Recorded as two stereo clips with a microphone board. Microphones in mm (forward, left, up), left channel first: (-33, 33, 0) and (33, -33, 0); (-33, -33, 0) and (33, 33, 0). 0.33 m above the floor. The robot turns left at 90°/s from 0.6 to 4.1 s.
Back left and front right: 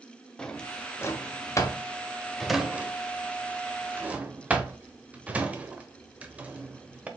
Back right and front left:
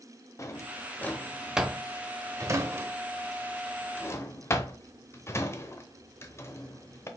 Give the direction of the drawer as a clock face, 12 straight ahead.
5 o'clock.